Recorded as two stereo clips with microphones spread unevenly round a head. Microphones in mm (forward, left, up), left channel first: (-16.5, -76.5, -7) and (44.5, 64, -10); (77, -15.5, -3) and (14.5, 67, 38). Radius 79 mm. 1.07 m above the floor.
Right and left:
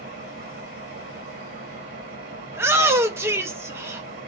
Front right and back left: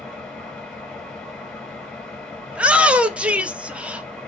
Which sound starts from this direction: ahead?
A shout, at 2.5 s.